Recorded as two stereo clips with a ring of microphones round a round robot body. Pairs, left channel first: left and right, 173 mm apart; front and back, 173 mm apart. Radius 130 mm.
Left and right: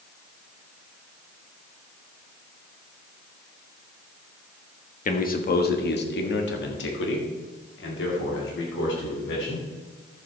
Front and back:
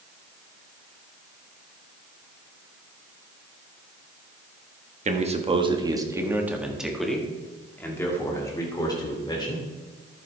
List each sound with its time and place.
5.0 s a man speaking: 130° left, 1.5 m; by 9.7 s 65° left, 3 m